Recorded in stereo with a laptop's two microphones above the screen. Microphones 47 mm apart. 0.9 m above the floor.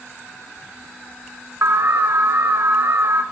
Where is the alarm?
55° right (ahead or behind), 0.8 m.